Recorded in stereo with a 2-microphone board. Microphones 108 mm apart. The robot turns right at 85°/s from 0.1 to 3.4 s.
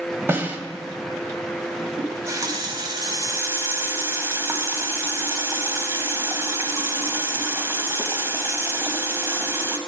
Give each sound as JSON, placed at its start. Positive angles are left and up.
{"t": 0.3, "sound": "a snare drum", "side_deg": -25, "distance_m": 0.8}
{"t": 2.0, "sound": "a running tap", "azimuth_deg": -160, "distance_m": 0.8}